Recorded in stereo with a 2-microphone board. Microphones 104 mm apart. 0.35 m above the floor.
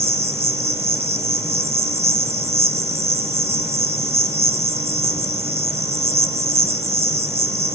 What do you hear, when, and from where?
0.0 s an insect: 75° right (ahead or behind), 1.1 m